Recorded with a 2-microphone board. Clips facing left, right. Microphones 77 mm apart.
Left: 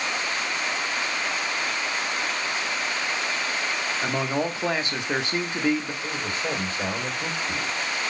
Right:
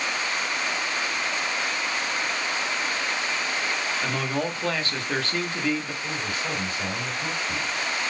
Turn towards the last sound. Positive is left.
turn(degrees=35)  # may be behind; listen again after turning